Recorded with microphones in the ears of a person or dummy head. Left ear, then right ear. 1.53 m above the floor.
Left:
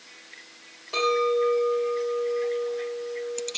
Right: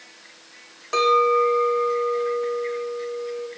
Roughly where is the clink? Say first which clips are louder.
Right 5 dB; right.